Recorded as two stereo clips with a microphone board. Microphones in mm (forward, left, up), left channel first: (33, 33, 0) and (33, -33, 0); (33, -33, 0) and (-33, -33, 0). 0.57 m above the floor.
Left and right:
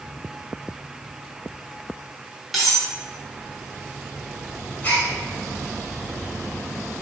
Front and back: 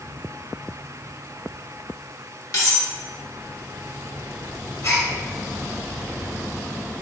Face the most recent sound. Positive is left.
turn(degrees=30)